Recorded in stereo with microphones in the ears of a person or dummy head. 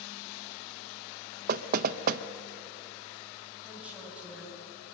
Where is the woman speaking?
10° right (ahead or behind), 9.5 m.